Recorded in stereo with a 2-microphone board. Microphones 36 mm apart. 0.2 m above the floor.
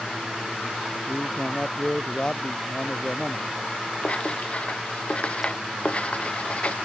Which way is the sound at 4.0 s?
35° left (ahead or behind).